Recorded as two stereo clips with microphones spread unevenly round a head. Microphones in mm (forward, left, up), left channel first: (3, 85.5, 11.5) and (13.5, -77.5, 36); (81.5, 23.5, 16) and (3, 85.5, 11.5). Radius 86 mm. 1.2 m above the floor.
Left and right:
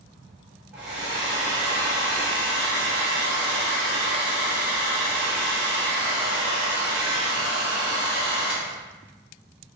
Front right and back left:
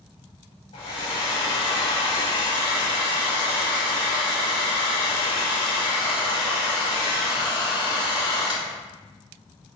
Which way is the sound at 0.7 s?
10° right.